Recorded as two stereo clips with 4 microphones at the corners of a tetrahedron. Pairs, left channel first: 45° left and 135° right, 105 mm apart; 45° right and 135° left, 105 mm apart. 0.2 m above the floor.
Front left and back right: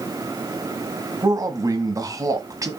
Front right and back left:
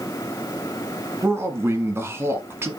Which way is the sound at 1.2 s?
170° right.